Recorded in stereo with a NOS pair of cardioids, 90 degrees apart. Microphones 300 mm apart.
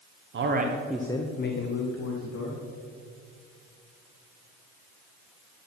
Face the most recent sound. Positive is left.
turn(degrees=70)